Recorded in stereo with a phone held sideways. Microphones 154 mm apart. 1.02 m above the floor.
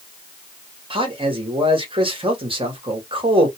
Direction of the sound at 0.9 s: 35° right (ahead or behind).